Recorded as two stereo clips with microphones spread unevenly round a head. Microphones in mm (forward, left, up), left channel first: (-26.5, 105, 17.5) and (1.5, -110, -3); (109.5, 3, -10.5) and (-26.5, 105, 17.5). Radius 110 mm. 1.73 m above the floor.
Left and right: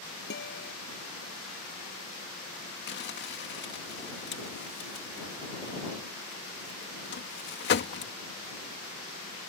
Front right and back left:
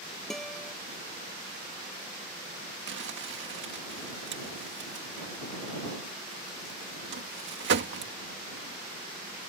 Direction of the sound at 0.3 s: 50° left.